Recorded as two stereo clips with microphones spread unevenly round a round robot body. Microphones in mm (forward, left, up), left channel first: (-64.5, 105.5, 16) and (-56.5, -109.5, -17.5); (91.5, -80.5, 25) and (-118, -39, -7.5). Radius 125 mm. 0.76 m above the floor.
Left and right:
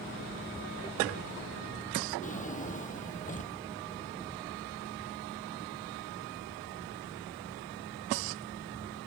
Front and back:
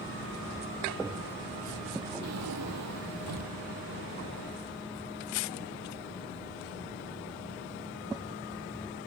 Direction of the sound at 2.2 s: 145° left.